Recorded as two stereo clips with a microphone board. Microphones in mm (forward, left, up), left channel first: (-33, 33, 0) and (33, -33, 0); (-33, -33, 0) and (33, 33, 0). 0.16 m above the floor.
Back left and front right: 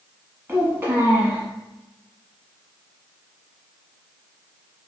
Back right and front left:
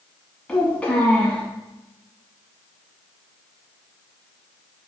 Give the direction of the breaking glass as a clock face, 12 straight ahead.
No breaking glass in this recording.